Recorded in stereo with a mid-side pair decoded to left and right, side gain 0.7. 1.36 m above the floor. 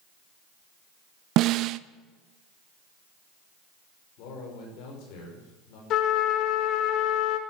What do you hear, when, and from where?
1.4 s a snare drum: 55° right, 0.6 m
4.2 s a man speaking: 65° left, 5.5 m
5.9 s a trumpet: 55° left, 2 m